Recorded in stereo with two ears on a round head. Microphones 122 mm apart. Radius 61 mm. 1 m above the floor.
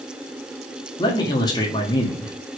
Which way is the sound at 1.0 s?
30° left (ahead or behind).